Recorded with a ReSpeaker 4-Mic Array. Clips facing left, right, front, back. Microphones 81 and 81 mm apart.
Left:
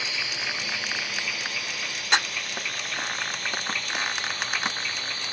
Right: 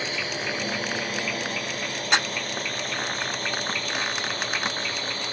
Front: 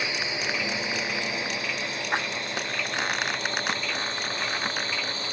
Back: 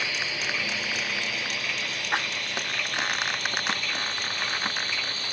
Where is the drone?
65° right; by 5.3 s 55° right.